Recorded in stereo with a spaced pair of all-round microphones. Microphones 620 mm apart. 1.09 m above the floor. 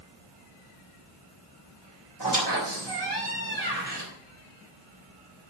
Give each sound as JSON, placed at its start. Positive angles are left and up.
{"t": 2.2, "sound": "a squeak", "side_deg": -40, "distance_m": 3.0}